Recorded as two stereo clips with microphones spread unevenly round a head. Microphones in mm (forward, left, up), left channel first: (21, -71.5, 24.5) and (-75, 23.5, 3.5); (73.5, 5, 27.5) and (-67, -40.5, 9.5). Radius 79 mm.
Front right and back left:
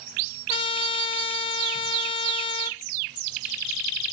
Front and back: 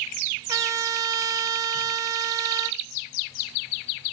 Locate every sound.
0.5 s a trumpet: 95° right, 0.8 m